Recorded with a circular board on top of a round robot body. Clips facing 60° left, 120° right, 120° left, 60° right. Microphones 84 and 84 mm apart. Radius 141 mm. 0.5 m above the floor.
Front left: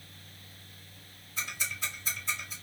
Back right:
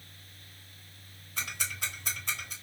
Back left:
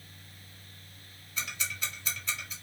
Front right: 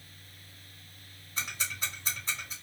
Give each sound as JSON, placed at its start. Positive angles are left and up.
{"t": 1.4, "sound": "ticking", "azimuth_deg": -115, "distance_m": 1.8}